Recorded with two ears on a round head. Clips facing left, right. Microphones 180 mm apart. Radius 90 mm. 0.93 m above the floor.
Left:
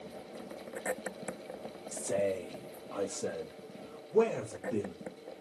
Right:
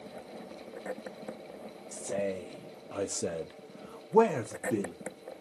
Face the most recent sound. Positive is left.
turn(degrees=-70)  # may be behind; listen again after turning